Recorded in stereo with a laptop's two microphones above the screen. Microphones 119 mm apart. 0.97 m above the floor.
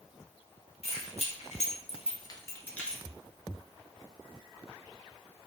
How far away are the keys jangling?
About 0.9 m.